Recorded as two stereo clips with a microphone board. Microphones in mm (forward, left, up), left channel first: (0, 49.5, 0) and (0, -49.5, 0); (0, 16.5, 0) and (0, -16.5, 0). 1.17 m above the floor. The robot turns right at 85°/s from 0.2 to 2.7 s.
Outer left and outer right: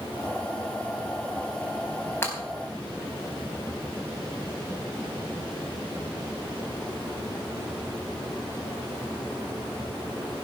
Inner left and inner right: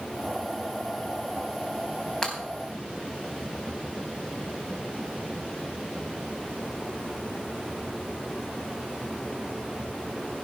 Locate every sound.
2.2 s breaking glass: 20° left (ahead or behind), 4 m; by 2.4 s 35° left (ahead or behind), 4 m